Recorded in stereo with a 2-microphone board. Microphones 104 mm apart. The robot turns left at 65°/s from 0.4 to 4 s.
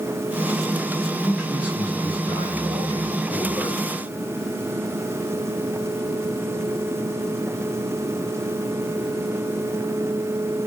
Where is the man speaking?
15° left, 7 m; by 3.8 s 155° right, 7 m.